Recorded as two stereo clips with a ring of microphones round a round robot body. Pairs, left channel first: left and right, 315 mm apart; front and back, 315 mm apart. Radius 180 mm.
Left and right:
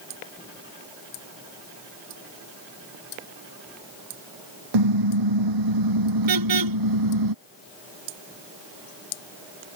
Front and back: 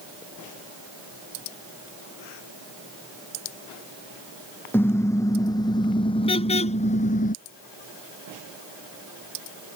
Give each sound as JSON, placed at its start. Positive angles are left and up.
{"t": 4.7, "sound": "a car horn", "azimuth_deg": -85}